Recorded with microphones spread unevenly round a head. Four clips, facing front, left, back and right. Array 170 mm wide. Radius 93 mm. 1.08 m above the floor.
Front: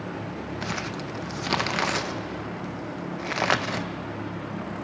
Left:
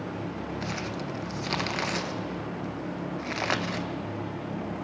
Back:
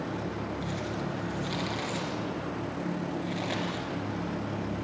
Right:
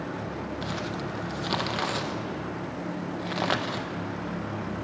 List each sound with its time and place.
0.6 s crumpling: 20° right, 1.2 m